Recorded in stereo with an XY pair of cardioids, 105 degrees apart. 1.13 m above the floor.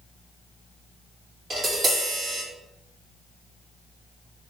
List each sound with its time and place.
1.5 s tapping: 55° right, 1.8 m